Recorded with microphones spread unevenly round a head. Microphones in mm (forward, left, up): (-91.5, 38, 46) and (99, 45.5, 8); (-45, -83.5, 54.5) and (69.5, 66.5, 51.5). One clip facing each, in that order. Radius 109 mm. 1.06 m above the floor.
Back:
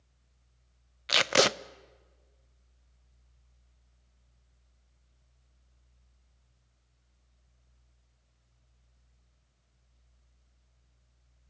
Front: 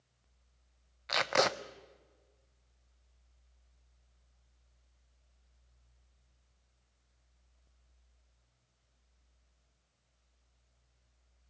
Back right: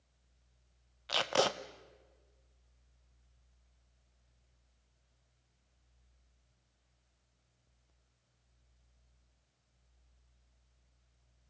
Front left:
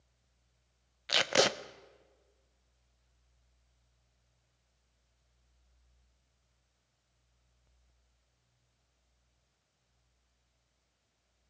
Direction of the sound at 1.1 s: 125° left.